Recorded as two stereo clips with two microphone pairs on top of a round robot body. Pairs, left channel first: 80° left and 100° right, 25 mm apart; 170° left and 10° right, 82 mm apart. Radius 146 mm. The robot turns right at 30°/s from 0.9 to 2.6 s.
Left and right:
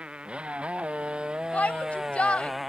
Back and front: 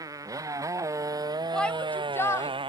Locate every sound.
0.0 s a motorcycle: 55° right; by 2.7 s 20° right
1.5 s a shout: 90° left; by 2.5 s 120° left